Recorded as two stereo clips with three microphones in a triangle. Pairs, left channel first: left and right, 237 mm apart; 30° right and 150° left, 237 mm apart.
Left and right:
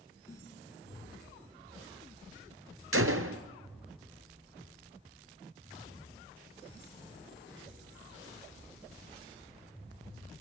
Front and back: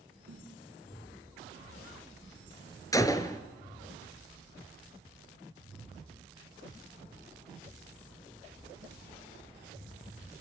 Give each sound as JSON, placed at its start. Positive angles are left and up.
{"t": 0.3, "sound": "a snare drum", "azimuth_deg": 165, "distance_m": 4.0}
{"t": 2.9, "sound": "a gunshot", "azimuth_deg": -105, "distance_m": 1.3}